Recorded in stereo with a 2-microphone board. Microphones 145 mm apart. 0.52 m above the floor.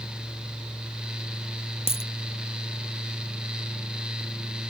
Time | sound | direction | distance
1.9 | a dropped coin | 45° left (ahead or behind) | ?